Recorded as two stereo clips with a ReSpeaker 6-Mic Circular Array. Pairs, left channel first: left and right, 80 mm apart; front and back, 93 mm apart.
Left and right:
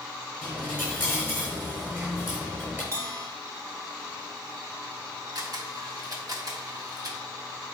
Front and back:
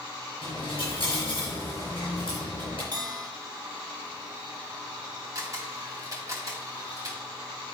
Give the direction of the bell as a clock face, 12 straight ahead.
5 o'clock.